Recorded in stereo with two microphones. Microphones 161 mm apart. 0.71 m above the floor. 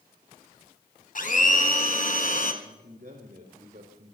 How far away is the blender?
About 1.7 m.